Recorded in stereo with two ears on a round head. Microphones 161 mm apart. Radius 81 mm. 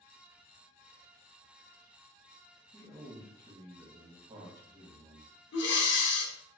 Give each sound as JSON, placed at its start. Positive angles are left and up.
{"t": 2.7, "sound": "a man speaking", "side_deg": -25, "distance_m": 1.0}
{"t": 5.5, "sound": "breathing", "side_deg": 70, "distance_m": 0.6}